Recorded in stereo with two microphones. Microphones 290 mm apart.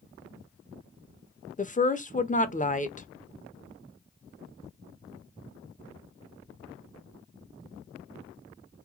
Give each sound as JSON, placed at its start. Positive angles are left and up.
{"t": 1.6, "sound": "a woman speaking", "side_deg": 25, "distance_m": 0.6}